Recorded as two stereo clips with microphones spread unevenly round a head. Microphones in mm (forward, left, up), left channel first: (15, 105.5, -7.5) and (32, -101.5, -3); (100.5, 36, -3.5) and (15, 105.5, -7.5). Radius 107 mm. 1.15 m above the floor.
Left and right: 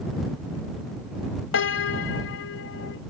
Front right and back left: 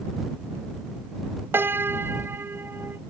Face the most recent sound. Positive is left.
turn(degrees=70)